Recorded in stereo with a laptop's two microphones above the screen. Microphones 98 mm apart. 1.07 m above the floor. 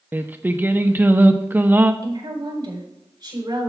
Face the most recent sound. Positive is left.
turn(degrees=-45)  # may be behind; listen again after turning